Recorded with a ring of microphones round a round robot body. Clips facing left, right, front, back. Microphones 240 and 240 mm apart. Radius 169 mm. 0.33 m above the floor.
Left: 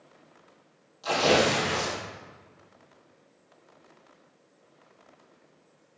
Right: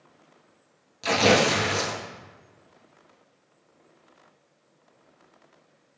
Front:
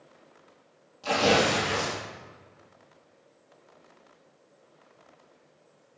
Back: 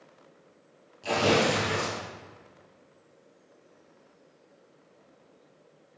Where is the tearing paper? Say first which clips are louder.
Right 2 dB, even; 95° right, 1.1 m.